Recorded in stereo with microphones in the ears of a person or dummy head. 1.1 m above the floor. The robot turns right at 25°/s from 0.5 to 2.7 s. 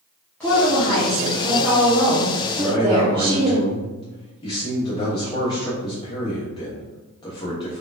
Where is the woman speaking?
175° left, 0.8 m; by 3.6 s 130° right, 0.8 m.